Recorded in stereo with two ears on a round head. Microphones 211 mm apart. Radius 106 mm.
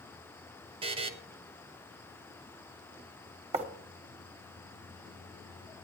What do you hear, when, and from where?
0.8 s a buzzer: 25° right (ahead or behind), 0.9 m
3.5 s writing: 30° right (ahead or behind), 1.3 m